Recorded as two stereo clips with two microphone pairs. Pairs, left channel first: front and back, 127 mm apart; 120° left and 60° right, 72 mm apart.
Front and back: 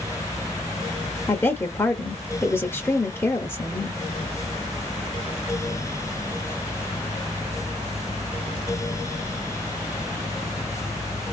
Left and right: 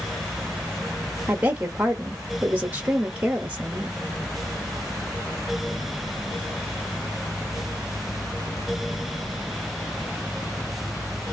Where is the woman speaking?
40° right, 0.8 m.